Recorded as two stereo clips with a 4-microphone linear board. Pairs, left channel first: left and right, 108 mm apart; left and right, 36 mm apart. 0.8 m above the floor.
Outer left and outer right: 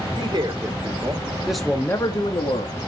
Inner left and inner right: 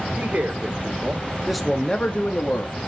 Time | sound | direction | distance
0.2 | a man speaking | 45° right (ahead or behind) | 1.9 m